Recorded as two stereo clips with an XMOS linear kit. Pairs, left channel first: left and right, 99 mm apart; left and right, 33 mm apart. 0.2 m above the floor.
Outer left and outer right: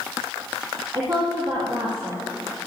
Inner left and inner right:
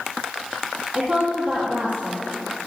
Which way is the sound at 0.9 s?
40° right (ahead or behind).